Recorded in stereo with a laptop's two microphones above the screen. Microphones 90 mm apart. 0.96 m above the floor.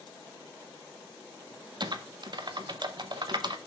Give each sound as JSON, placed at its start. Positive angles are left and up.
{"t": 1.8, "sound": "typing on a keyboard", "side_deg": -50, "distance_m": 0.6}